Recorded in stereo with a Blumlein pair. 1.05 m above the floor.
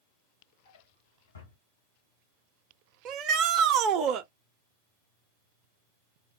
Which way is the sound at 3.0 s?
35° right.